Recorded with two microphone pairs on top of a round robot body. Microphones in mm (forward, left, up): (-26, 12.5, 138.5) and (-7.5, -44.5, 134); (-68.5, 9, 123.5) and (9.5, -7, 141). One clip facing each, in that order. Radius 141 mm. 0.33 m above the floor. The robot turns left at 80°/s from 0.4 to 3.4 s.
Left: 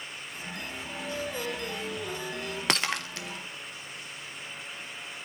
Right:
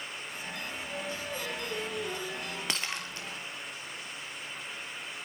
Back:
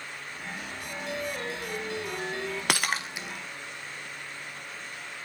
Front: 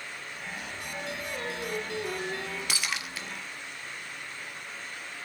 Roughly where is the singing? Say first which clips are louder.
Left 4 dB, back 3 dB; left.